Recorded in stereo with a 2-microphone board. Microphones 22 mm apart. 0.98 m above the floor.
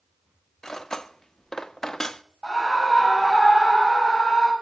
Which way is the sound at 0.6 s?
25° left (ahead or behind).